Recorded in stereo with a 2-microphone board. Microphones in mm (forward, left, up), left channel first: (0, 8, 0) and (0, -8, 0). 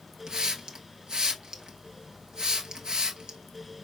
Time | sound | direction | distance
0.3 | a hiss | 55° right (ahead or behind) | 1.1 m